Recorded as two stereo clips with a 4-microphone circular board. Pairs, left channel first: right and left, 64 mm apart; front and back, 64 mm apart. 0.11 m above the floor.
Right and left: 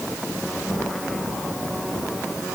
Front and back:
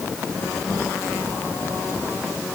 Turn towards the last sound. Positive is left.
No sound to turn to.